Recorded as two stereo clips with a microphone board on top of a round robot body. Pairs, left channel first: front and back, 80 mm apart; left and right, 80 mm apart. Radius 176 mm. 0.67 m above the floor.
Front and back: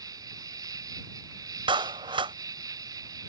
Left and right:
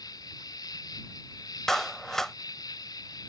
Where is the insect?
135° left.